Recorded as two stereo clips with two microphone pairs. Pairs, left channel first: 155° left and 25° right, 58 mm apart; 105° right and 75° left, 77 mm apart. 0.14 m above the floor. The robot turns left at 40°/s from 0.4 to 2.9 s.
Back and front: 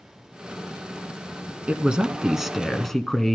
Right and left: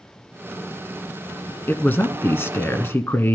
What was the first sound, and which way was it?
A man speaking, 70° right.